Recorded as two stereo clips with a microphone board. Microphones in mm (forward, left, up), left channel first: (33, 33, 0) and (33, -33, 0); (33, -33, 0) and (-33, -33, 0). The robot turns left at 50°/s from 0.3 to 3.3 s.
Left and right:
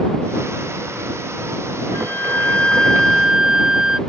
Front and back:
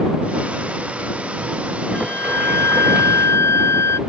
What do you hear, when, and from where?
1.9 s a flute: 55° left; by 4.0 s 15° right